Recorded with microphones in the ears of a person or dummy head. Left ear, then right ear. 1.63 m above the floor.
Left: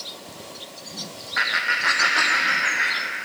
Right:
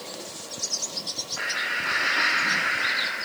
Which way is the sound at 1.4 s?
60° left (ahead or behind).